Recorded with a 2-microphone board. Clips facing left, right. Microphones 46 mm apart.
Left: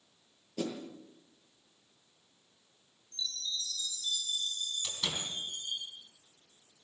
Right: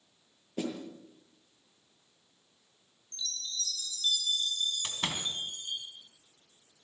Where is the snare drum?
25° right (ahead or behind), 7 m.